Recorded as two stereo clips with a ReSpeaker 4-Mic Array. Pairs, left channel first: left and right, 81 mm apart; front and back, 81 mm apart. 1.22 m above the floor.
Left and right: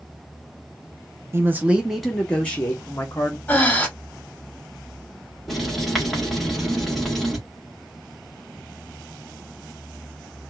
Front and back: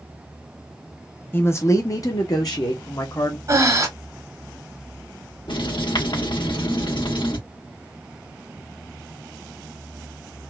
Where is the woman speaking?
50° right, 0.6 m; by 3.4 s 35° left, 1.2 m.